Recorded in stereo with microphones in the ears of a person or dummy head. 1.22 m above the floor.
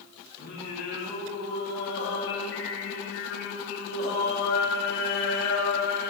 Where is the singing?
75° left (ahead or behind), 3 m.